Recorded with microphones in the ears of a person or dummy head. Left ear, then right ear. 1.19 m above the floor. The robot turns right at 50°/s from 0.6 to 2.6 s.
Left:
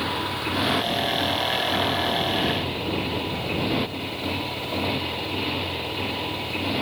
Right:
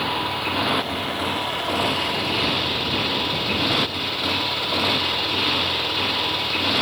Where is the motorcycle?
150° right; by 6.8 s 50° right.